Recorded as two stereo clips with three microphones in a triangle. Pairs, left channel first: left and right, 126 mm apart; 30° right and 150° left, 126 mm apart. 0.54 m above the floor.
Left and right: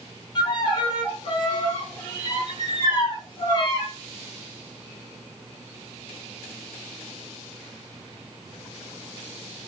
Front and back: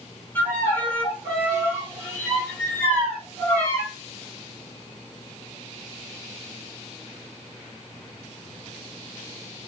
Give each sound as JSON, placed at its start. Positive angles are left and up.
{"t": 0.3, "sound": "a violin", "azimuth_deg": 40, "distance_m": 1.1}